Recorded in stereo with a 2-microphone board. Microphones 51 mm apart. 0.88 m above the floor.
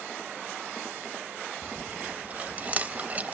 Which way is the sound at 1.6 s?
30° right (ahead or behind).